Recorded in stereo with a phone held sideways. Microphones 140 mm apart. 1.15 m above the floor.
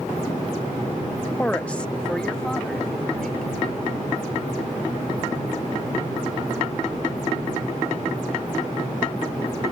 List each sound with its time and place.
1.4 s a woman speaking: 10° left (ahead or behind); by 3.5 s 5° left (ahead or behind)